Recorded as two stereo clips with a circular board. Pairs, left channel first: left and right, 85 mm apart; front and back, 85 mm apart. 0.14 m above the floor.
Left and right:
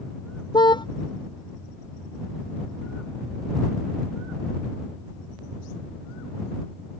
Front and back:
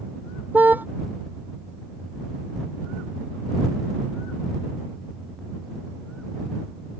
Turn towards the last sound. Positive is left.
turn(degrees=110)